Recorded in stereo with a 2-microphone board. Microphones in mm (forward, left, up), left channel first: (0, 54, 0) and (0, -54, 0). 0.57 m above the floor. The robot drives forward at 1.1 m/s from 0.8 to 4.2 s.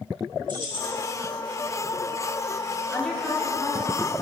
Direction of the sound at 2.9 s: 10° left (ahead or behind).